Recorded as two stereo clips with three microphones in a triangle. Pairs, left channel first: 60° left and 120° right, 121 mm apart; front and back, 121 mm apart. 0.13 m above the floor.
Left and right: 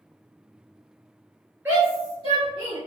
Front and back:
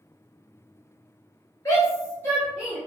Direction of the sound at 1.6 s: 50° right.